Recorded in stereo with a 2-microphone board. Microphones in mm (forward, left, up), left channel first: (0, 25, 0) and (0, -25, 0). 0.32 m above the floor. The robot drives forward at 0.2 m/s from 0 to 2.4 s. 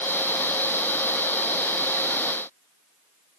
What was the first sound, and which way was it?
Only background noise.